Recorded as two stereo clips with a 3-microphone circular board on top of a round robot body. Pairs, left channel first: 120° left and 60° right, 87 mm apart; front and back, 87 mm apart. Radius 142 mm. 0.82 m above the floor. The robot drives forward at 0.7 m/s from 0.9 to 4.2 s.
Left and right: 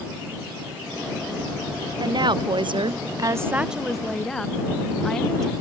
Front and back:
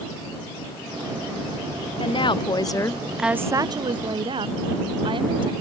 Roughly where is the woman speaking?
Ahead.